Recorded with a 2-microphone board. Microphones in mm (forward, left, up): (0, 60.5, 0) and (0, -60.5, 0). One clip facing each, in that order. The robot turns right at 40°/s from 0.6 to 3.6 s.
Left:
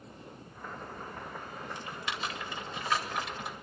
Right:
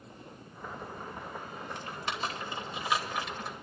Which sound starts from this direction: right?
Typing on a keyboard, at 1.8 s.